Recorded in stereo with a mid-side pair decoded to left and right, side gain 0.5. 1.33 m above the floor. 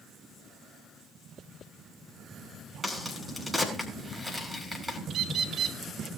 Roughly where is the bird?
Ahead right.